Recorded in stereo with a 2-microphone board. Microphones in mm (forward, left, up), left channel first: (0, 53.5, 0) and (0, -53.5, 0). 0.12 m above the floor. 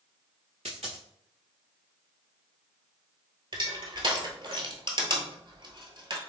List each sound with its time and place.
0.7 s a dropped coin: 80° right, 1.0 m
3.5 s crushing: 50° right (ahead or behind), 1.0 m